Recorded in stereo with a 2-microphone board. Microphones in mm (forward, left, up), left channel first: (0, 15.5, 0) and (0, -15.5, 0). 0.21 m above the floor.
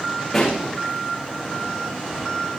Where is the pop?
15° left (ahead or behind), 8 m.